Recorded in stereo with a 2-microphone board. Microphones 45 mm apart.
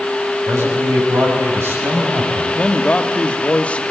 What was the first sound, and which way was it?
A man speaking, 70° right (ahead or behind).